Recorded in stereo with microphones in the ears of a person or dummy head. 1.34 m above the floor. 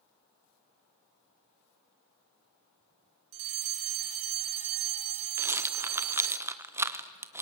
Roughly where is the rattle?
Centre.